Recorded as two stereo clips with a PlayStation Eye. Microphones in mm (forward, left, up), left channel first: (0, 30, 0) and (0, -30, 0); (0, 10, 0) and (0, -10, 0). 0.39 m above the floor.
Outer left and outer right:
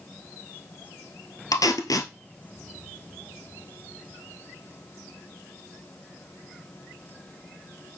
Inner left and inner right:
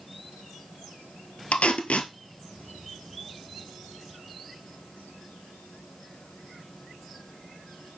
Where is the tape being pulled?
85° left, 1.4 m.